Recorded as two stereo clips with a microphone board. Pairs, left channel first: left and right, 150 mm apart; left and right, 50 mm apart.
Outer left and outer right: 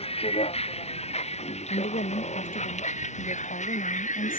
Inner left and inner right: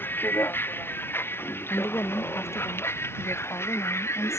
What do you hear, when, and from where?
0.0 s a vehicle: 40° left (ahead or behind); by 4.4 s 55° left (ahead or behind)
1.7 s a woman speaking: 70° left (ahead or behind)